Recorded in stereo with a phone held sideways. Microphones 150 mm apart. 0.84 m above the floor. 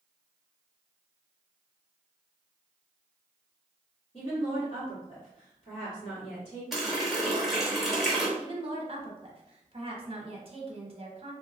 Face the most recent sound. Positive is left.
turn(degrees=-45)  # may be behind; listen again after turning